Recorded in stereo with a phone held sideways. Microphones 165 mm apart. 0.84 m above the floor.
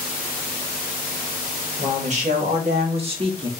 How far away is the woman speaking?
About 1.8 m.